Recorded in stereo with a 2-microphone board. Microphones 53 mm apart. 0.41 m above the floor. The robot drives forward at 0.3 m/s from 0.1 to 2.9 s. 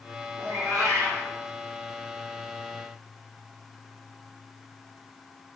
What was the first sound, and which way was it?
A cat meowing, 80° right.